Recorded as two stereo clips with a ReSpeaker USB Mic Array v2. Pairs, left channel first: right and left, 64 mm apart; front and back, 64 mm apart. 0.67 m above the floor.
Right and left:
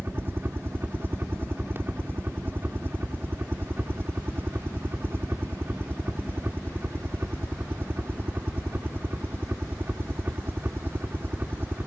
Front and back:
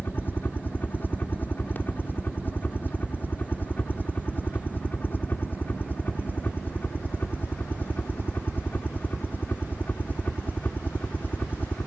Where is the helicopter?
50° left.